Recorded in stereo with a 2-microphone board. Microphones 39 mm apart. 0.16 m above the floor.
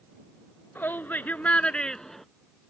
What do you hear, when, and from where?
0.8 s a shout: 55° left (ahead or behind); by 2.2 s 5° left (ahead or behind)